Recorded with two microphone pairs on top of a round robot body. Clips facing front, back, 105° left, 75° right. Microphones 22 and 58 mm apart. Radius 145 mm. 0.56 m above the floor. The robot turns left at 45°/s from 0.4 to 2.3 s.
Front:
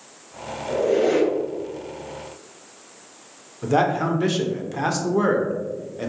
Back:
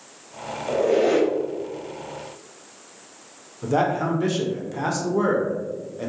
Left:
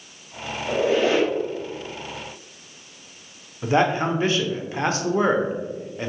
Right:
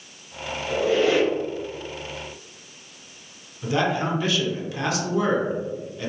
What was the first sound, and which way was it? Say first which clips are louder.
A squeak: even, even; 175° left.